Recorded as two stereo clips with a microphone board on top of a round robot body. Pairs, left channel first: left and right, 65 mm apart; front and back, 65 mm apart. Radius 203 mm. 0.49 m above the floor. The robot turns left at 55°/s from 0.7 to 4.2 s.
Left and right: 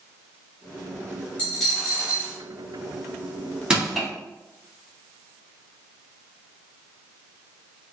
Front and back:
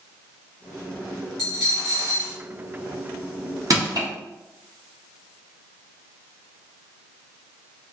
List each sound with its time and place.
1.4 s a dropped coin: 25° left, 0.9 m; by 2.4 s 30° right, 0.9 m
3.7 s crushing: 160° right, 1.4 m; by 4.1 s straight behind, 1.4 m